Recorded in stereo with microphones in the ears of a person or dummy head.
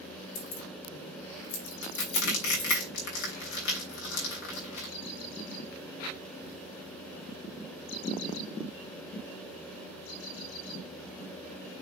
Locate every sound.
0.3 s keys jangling: 80° left, 2.5 m; by 2.8 s 35° left (ahead or behind), 1.5 m
1.8 s crushing: 65° left (ahead or behind), 3 m